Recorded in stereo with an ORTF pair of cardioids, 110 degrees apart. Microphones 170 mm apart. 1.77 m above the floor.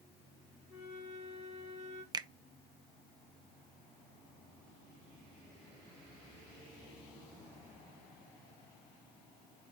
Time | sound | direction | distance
0.7 | a flute | 40° right | 4 m
2.1 | a finger snap | 25° right | 0.6 m